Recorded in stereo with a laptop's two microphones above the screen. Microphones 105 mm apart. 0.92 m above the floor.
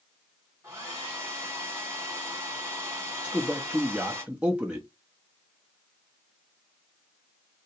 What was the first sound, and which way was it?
A hair dryer, 25° right (ahead or behind).